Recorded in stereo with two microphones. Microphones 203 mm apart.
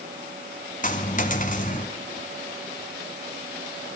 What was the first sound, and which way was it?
A dropped coin, 45° left (ahead or behind).